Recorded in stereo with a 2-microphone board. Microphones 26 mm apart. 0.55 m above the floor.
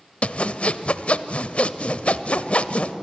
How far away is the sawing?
About 0.7 m.